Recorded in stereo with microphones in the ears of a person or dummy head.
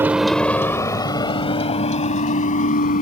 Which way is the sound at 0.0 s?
5° right (ahead or behind).